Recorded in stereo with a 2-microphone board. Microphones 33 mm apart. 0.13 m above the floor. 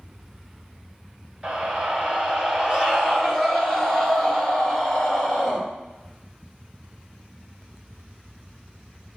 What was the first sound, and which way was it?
A scream, 20° right (ahead or behind).